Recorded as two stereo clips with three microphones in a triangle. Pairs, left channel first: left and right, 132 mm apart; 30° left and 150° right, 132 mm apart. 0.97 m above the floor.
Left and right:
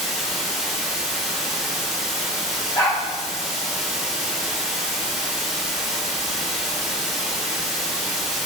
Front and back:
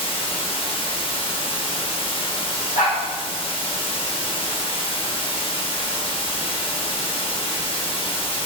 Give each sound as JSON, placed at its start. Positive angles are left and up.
{"t": 0.0, "sound": "running water", "azimuth_deg": -5, "distance_m": 0.7}
{"t": 2.8, "sound": "a dog barking", "azimuth_deg": 20, "distance_m": 1.7}